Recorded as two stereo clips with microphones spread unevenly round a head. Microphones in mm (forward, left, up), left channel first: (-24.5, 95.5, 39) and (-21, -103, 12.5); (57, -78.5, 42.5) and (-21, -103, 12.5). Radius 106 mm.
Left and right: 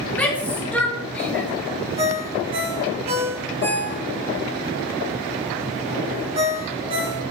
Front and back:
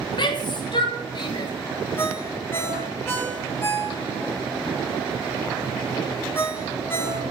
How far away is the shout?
About 1.9 m.